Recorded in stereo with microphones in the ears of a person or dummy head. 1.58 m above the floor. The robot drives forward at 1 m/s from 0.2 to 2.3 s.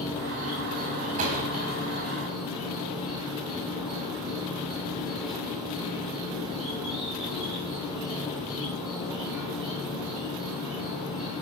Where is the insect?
10° right (ahead or behind), 6.5 m.